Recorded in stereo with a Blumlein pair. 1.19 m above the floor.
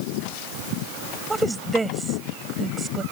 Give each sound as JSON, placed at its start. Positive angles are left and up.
{"t": 1.3, "sound": "a woman speaking", "azimuth_deg": -10}